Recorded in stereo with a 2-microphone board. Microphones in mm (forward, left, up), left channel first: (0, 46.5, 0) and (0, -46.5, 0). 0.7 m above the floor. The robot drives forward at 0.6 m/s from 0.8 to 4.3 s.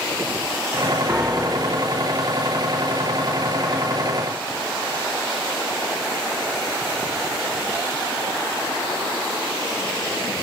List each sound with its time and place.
1.1 s a piano: 10° right (ahead or behind), 1.1 m; by 2.0 s 15° right (ahead or behind), 0.7 m